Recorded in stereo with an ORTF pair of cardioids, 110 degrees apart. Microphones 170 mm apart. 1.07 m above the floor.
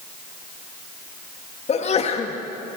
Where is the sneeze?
40° left, 1.7 m.